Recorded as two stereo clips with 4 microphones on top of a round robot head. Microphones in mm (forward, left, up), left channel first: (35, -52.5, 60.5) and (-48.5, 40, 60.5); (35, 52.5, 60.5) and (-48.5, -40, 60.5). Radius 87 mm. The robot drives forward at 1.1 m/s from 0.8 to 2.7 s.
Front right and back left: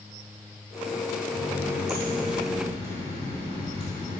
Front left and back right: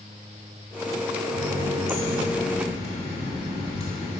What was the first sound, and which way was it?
A running tap, 50° left.